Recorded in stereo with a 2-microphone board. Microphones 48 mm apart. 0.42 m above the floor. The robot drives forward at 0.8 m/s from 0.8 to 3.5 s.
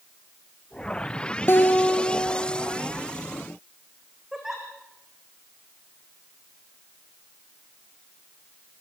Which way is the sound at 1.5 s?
50° left (ahead or behind).